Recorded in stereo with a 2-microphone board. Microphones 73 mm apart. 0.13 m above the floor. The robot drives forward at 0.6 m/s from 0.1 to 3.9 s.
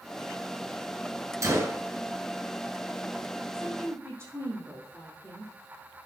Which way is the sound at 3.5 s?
40° right (ahead or behind).